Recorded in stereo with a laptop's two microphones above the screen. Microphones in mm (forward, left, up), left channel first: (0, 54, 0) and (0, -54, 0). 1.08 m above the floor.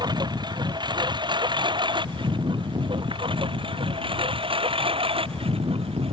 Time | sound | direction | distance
0.0 | a lawn mower | 45° right (ahead or behind) | ?